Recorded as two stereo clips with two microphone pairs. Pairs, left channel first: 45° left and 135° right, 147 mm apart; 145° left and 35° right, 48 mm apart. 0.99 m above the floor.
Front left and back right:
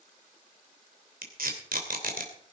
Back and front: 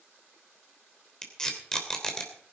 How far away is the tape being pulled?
About 3 m.